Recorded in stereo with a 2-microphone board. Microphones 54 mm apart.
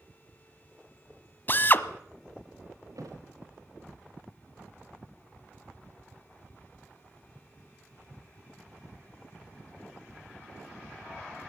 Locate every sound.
1.5 s a drill: 40° left (ahead or behind), 1.1 m
3.0 s a thud: 80° right, 5 m